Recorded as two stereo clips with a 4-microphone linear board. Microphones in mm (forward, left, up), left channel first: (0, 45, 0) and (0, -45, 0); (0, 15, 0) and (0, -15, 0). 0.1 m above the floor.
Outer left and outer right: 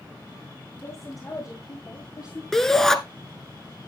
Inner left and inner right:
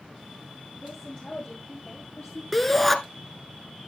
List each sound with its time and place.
0.8 s a woman speaking: 40° left (ahead or behind), 5 m; by 2.4 s 45° left (ahead or behind), 3.5 m
2.5 s a shout: 5° left (ahead or behind), 1.1 m